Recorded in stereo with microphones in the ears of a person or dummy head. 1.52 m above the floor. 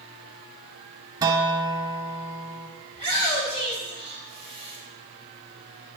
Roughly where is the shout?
Left.